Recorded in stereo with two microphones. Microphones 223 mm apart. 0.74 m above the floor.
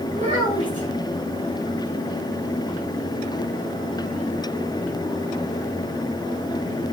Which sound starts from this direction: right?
A child speaking, at 0.1 s.